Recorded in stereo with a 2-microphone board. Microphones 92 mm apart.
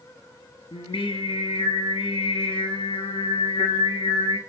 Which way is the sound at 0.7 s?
80° left.